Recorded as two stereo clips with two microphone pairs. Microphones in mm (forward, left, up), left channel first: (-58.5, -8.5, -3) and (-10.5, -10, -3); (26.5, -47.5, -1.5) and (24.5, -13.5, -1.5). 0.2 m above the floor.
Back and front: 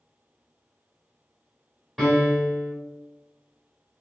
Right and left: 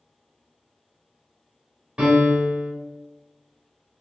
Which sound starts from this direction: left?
A piano, at 2.0 s.